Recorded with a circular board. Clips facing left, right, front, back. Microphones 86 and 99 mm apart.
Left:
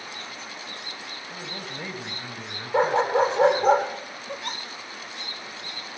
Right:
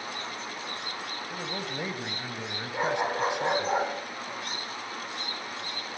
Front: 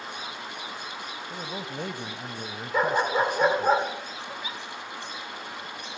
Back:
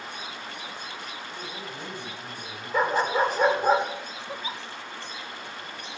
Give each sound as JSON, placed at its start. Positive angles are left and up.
{"t": 1.3, "sound": "a man speaking", "azimuth_deg": -15, "distance_m": 1.9}
{"t": 2.7, "sound": "a dog barking", "azimuth_deg": 90, "distance_m": 9.0}
{"t": 4.3, "sound": "a giggle", "azimuth_deg": 115, "distance_m": 2.0}